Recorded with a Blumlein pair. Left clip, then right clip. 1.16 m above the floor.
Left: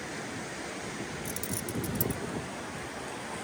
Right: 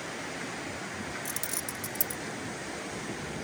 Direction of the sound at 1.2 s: 10° right.